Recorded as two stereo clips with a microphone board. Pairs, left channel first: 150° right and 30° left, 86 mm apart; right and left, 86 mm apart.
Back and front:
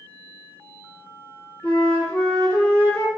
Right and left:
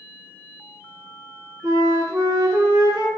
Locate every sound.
1.6 s a flute: 135° left, 1.6 m